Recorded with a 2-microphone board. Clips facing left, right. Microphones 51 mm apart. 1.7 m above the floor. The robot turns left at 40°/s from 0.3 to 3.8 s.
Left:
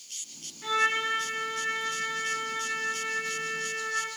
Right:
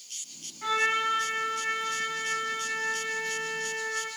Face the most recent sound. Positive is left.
turn(degrees=145)